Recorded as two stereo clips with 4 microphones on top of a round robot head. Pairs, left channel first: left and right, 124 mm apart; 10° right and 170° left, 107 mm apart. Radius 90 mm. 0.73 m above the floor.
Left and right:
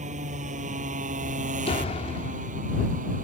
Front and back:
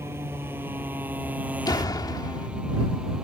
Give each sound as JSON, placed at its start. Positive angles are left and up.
{"t": 0.0, "sound": "a motorcycle", "azimuth_deg": -115}
{"t": 1.6, "sound": "a door slam", "azimuth_deg": 45}